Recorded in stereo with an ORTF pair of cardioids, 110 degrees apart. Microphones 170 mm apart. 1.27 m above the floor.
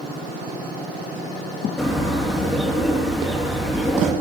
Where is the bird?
Straight ahead, 2.5 m.